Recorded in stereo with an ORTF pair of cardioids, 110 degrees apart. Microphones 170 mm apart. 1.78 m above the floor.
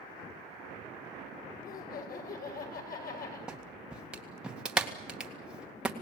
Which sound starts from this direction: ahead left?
Laughter, at 1.6 s.